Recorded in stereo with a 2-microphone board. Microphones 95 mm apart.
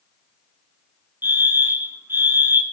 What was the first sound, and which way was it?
A fire alarm, 20° right (ahead or behind).